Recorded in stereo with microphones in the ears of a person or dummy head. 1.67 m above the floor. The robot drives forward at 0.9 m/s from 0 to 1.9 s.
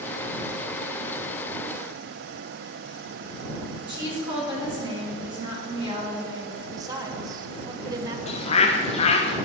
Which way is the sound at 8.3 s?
40° left (ahead or behind).